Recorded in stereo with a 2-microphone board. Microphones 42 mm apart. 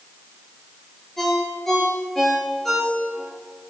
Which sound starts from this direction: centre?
A ringtone, at 1.2 s.